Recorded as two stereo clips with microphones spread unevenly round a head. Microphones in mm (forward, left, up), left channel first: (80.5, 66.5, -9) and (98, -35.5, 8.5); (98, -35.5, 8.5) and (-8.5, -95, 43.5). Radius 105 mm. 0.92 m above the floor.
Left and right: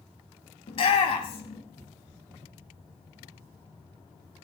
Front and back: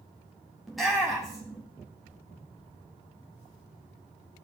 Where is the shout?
110° left, 1.7 m.